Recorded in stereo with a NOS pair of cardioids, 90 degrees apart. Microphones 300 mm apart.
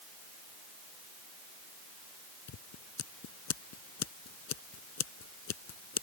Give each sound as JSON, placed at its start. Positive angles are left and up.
{"t": 2.5, "sound": "scissors", "azimuth_deg": 60}